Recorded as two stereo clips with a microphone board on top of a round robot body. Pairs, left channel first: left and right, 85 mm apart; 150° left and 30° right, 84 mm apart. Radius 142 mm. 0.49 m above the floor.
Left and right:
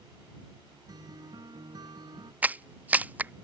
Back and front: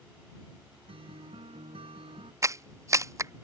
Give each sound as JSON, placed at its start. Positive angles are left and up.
{"t": 0.9, "sound": "a guitar", "azimuth_deg": -45}
{"t": 2.4, "sound": "a clap", "azimuth_deg": -30}